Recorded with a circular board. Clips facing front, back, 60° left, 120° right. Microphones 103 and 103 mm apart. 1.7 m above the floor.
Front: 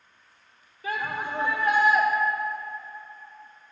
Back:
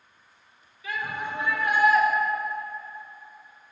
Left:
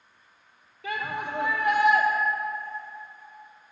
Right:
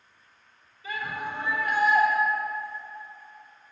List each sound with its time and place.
0.8 s a shout: 45° left, 1.8 m; by 2.0 s 70° left, 1.5 m